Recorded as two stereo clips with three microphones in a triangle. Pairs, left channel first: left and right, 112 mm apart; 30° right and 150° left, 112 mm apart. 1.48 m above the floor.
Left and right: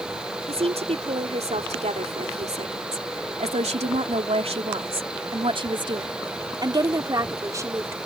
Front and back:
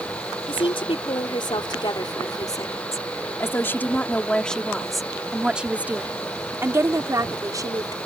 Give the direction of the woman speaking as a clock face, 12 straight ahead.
2 o'clock.